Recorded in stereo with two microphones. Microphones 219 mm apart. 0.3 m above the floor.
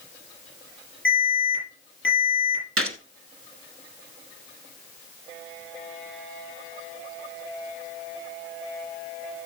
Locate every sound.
1.1 s an alarm: 60° left (ahead or behind), 7 m
2.8 s a gunshot: 75° right (ahead or behind), 1.0 m